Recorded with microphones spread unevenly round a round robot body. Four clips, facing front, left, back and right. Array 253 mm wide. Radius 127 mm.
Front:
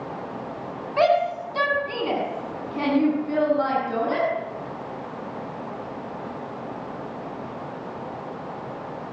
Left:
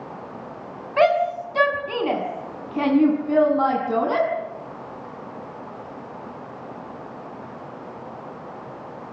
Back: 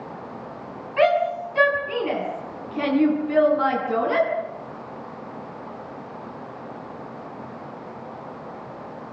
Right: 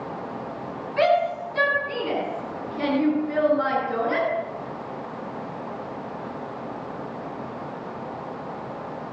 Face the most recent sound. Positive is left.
turn(degrees=90)